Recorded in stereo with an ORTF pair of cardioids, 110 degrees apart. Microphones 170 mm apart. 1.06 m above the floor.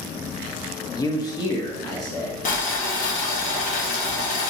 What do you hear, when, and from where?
0.9 s a man speaking: 25° left, 0.7 m
2.5 s boiling: 55° left, 0.9 m